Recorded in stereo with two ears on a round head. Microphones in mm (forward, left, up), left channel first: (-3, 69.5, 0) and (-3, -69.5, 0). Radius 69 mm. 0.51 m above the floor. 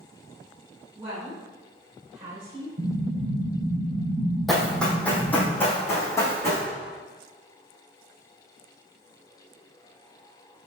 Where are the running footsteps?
Centre (ahead or behind), 1.4 m; by 6.6 s 25° left (ahead or behind), 2.5 m.